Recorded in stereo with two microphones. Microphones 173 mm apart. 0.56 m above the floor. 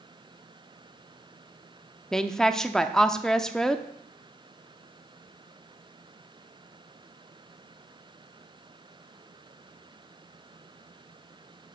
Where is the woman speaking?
5° left (ahead or behind), 0.7 m.